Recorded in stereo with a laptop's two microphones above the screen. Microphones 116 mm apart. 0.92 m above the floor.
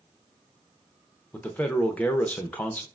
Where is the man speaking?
10° left (ahead or behind), 0.6 m.